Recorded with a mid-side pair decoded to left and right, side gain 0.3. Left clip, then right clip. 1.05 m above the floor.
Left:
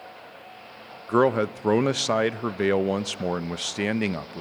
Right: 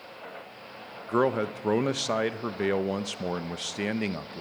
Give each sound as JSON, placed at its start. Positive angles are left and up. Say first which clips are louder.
{"t": 1.1, "sound": "a man speaking", "louder": "left 4 dB", "azimuth_deg": 45, "distance_m": 0.6}